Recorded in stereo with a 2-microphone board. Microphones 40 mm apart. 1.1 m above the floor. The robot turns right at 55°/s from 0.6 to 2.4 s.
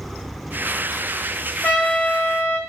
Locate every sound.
1.6 s a trumpet: 60° left, 1.4 m; by 2.6 s 105° left, 1.4 m